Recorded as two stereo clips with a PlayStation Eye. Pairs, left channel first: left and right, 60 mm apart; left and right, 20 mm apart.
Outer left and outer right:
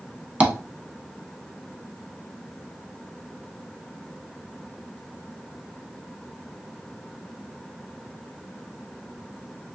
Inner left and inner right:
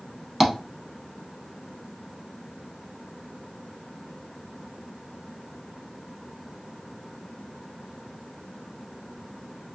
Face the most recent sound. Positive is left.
turn(degrees=-25)  # may be behind; listen again after turning